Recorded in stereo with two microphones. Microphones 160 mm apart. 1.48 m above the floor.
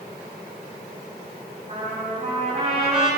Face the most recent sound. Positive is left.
turn(degrees=-40)  # may be behind; listen again after turning